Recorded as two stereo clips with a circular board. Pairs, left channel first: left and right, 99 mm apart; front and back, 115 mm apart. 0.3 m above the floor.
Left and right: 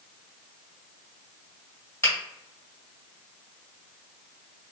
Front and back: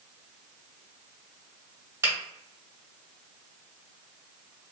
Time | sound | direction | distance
2.0 | a finger snap | 130° left | 1.8 m